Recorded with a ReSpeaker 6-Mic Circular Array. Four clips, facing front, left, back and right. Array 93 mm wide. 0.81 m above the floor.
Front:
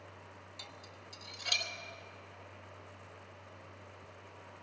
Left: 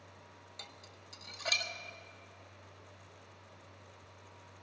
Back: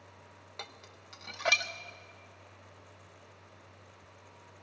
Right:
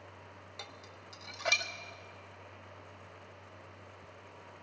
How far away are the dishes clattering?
About 0.8 m.